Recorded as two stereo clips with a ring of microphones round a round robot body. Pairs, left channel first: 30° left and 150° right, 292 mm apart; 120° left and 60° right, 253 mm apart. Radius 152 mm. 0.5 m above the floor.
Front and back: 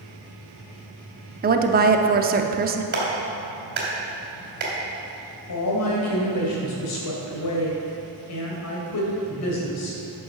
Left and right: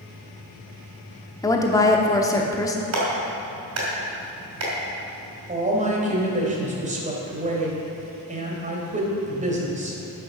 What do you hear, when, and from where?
1.4 s a woman speaking: 175° right, 0.8 m
2.9 s a clap: 95° right, 2.5 m
5.5 s a woman speaking: straight ahead, 2.5 m